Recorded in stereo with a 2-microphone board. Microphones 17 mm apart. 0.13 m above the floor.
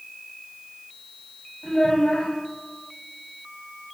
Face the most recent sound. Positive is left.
turn(degrees=65)  # may be behind; listen again after turning